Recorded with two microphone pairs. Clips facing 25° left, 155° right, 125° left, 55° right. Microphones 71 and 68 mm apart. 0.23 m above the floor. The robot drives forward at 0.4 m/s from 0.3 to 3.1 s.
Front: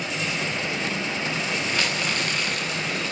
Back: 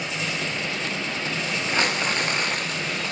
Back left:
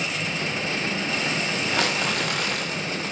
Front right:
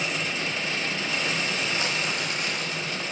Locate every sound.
1.7 s crumpling: 140° left, 5 m; by 3.1 s 145° left, 5.5 m